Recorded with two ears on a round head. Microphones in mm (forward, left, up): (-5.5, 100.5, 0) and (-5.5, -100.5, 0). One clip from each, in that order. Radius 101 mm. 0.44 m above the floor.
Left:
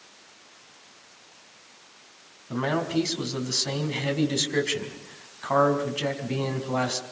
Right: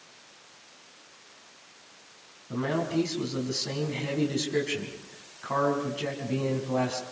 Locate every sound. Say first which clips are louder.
2.5 s a man speaking: left 3 dB; 35° left (ahead or behind), 4.5 m